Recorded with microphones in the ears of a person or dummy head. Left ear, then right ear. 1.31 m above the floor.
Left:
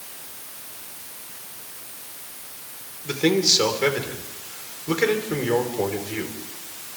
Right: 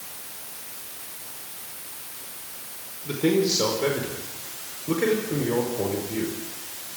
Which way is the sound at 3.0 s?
45° left (ahead or behind).